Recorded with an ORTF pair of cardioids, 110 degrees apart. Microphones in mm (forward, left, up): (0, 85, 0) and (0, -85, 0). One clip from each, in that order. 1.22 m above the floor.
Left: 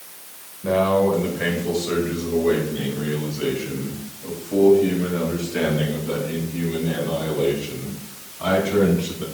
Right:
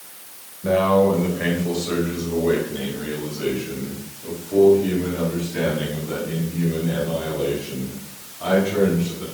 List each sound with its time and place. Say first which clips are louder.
0.6 s a man speaking: right 1 dB; 5° right, 4 m; by 9.2 s 30° left, 8.5 m